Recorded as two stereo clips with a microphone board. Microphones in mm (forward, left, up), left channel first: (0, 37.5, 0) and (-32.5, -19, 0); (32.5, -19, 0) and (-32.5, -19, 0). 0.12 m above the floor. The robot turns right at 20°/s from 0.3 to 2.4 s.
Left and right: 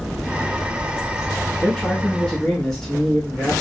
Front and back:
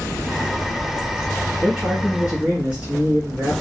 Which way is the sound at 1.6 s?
115° left.